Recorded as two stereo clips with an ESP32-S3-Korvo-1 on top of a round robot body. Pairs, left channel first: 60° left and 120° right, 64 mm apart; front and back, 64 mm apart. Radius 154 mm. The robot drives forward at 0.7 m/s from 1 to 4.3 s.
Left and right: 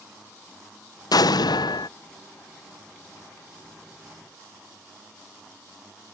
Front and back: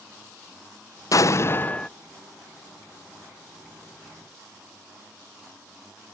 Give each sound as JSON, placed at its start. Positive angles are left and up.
{"t": 1.1, "sound": "an explosion", "azimuth_deg": 40}